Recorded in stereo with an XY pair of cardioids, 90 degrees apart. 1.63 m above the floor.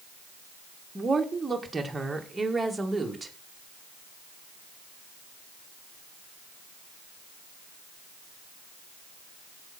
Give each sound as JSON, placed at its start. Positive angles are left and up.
{"t": 0.9, "sound": "a woman speaking", "azimuth_deg": -25, "distance_m": 1.8}